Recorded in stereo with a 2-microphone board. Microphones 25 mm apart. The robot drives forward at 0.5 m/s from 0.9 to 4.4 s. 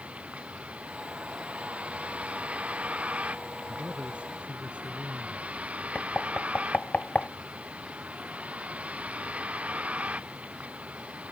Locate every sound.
0.0 s a vehicle: 50° right (ahead or behind); by 11.3 s 55° right (ahead or behind)
3.7 s a man speaking: 45° right (ahead or behind); by 5.5 s 50° right (ahead or behind)
6.0 s knocking: 70° left (ahead or behind)